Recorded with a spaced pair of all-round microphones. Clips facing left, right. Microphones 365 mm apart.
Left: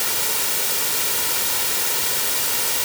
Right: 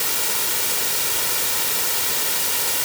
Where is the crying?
No crying in this recording.